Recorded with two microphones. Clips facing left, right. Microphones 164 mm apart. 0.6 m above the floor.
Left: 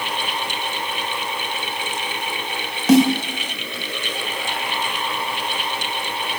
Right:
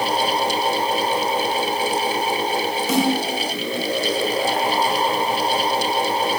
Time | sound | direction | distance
2.9 | a snare drum | 80° left | 4 m